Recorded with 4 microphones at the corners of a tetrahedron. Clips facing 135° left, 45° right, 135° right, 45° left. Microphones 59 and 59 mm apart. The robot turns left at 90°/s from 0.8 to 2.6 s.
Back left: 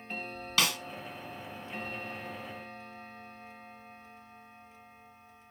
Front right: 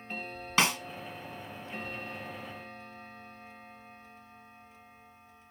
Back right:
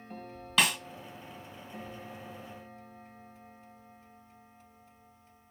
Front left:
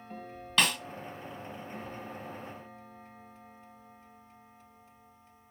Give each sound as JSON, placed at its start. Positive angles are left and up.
{"t": 0.6, "sound": "a snare drum", "azimuth_deg": -55, "distance_m": 1.4}